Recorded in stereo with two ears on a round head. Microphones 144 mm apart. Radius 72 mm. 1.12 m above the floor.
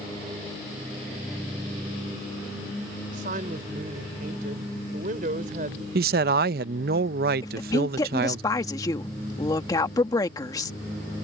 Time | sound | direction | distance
3.1 | a man speaking | 60° right (ahead or behind) | ?
6.0 | a man speaking | 70° right (ahead or behind) | ?
7.4 | a woman speaking | 25° left (ahead or behind) | ?